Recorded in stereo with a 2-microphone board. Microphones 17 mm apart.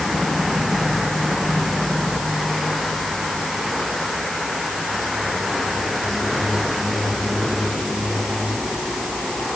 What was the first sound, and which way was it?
Only background noise.